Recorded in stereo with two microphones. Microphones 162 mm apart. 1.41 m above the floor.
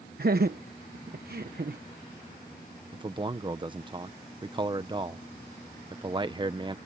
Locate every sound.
0.2 s laughter: 60° right (ahead or behind)
2.9 s a man speaking: 30° right (ahead or behind)